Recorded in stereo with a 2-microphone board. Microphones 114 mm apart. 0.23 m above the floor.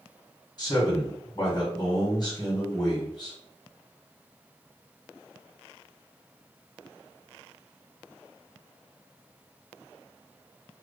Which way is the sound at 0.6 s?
40° left (ahead or behind).